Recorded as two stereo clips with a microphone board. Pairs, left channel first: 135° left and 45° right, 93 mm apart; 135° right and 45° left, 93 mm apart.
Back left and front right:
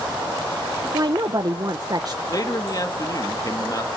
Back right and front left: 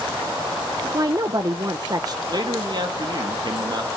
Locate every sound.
0.9 s a woman speaking: straight ahead, 0.9 m
2.3 s a man speaking: 85° left, 2.5 m